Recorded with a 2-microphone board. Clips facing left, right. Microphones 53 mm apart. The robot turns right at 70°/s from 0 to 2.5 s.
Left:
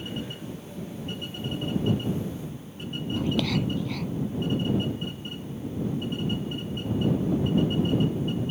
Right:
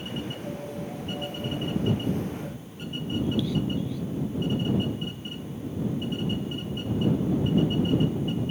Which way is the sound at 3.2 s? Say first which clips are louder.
Even; 70° left (ahead or behind).